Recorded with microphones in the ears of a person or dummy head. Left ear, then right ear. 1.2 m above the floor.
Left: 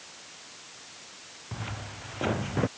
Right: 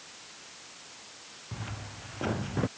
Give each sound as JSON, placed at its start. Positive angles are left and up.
{"t": 1.5, "sound": "footsteps", "side_deg": 15}